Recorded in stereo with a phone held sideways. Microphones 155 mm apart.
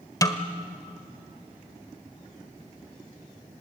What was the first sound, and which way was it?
A snare drum, 20° left (ahead or behind).